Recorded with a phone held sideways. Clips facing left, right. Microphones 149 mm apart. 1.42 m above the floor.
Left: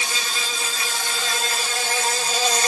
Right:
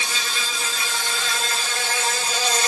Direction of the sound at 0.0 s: 40° left (ahead or behind).